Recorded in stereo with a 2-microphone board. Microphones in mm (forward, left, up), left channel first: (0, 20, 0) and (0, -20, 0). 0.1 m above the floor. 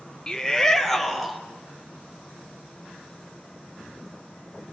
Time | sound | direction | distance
0.3 | a shout | 20° left (ahead or behind) | 1.7 m